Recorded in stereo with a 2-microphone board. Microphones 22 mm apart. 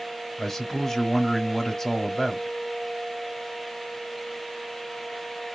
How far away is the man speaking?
About 0.9 m.